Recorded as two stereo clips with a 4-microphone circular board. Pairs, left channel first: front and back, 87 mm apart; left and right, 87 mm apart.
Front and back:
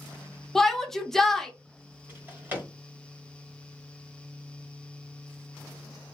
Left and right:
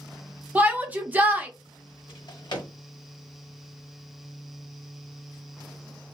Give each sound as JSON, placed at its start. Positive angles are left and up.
{"t": 0.6, "sound": "a shout", "azimuth_deg": -80, "distance_m": 0.5}
{"t": 2.1, "sound": "a drawer", "azimuth_deg": 115, "distance_m": 1.0}